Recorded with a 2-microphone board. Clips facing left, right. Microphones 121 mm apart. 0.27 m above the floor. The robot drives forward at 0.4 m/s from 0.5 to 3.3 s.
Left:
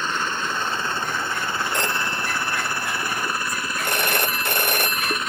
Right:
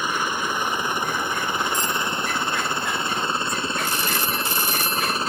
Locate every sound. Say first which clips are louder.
0.0 s a helicopter: right 1 dB; 10° right (ahead or behind); by 5.3 s 30° right (ahead or behind)
1.7 s a phone ringing: even; 70° left (ahead or behind); by 5.2 s 60° left (ahead or behind)